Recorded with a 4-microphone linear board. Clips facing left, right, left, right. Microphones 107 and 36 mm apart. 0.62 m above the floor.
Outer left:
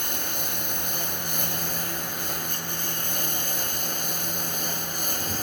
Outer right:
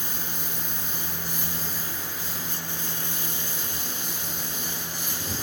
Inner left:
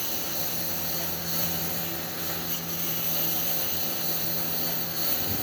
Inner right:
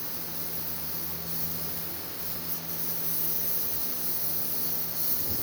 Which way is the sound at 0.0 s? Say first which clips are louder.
Outer left 3 dB, inner left 7 dB; 65° left (ahead or behind).